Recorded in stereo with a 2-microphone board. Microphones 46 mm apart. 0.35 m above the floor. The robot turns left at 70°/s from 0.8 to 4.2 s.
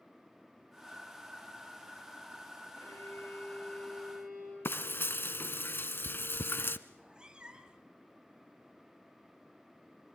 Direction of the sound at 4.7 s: 55° left (ahead or behind).